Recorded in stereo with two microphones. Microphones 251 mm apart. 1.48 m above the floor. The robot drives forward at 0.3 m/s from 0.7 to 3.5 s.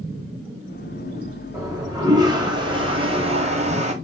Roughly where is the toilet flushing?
Centre.